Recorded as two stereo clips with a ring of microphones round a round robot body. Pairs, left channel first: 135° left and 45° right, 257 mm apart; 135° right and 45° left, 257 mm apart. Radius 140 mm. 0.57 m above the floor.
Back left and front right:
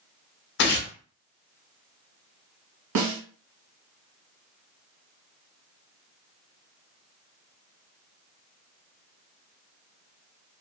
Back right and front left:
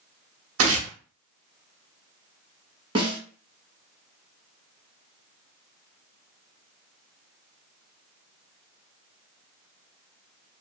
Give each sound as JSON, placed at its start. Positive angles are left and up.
{"t": 0.6, "sound": "tearing paper", "azimuth_deg": 85, "distance_m": 0.7}
{"t": 3.0, "sound": "a snare drum", "azimuth_deg": -30, "distance_m": 1.1}